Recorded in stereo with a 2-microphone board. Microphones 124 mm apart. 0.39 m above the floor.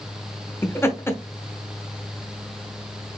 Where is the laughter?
20° left (ahead or behind), 0.8 m.